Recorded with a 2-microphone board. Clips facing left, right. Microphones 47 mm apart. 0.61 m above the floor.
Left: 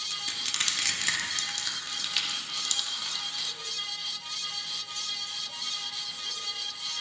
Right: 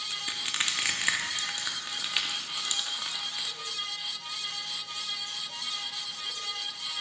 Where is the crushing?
20° right (ahead or behind), 0.8 m.